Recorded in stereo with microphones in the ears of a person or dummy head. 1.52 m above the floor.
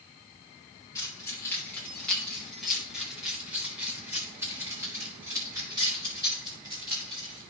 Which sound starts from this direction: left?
Keys jangling, at 0.9 s.